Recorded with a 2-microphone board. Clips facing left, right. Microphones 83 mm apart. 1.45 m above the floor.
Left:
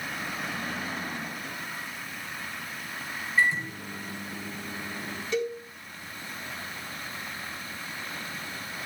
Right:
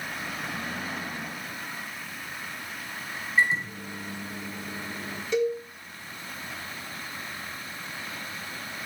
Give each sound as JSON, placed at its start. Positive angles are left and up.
{"t": 3.4, "sound": "a microwave", "side_deg": -20, "distance_m": 4.0}
{"t": 5.3, "sound": "a cowbell", "side_deg": -15, "distance_m": 8.0}